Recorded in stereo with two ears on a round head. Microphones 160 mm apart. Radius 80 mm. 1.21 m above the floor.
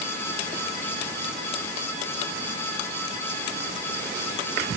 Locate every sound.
Only background noise.